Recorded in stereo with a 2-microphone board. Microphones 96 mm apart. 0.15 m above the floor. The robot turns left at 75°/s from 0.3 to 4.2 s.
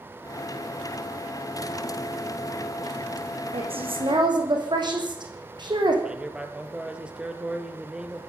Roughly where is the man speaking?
Centre.